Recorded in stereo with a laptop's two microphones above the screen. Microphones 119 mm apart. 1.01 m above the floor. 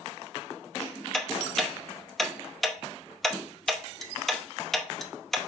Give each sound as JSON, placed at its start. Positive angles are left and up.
{"t": 1.1, "sound": "ticking", "side_deg": 0, "distance_m": 0.6}